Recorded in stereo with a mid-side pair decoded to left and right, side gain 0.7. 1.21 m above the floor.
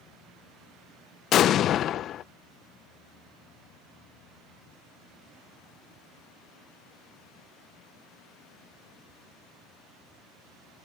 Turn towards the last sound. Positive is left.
turn(degrees=45)